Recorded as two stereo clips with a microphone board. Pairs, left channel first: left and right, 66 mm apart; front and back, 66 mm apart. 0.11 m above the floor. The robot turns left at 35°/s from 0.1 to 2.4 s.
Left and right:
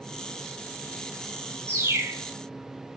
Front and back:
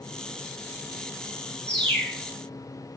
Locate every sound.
1.7 s a bird: 65° right, 0.8 m; by 2.2 s 85° right, 0.8 m